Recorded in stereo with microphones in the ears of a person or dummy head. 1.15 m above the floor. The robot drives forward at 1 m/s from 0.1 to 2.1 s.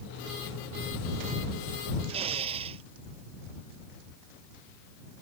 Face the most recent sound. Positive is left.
turn(degrees=-35)  # may be behind; listen again after turning